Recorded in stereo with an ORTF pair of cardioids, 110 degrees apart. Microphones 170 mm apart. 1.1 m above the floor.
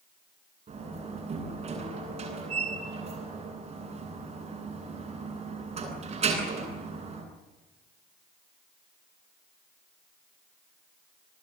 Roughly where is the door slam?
Ahead right.